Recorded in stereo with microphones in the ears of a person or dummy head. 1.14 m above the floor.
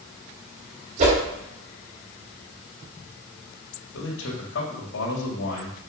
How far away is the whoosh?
About 3 m.